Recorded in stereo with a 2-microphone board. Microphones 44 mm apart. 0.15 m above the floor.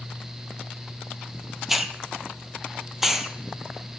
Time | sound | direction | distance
1.7 | a hiss | 5° right (ahead or behind) | 0.8 m